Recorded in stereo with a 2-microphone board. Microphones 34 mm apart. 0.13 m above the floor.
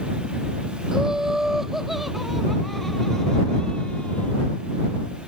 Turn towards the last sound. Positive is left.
turn(degrees=35)  # may be behind; listen again after turning